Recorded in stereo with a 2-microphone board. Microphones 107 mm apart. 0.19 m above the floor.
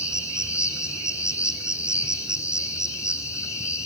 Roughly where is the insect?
Left.